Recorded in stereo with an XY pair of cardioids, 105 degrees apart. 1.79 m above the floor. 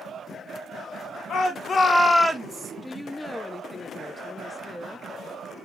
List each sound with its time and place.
1.3 s a shout: 60° left, 1.5 m; by 2.7 s 35° right, 1.3 m
2.8 s a woman speaking: 15° left, 0.5 m